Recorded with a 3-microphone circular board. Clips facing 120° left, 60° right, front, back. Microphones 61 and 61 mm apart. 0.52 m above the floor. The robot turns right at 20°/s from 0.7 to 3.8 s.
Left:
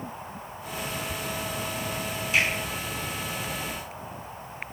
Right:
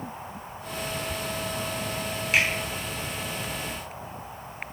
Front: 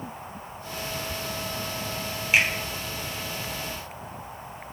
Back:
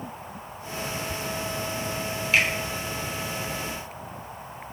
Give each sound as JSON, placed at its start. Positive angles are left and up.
{"t": 2.3, "sound": "a finger snap", "azimuth_deg": -70, "distance_m": 0.9}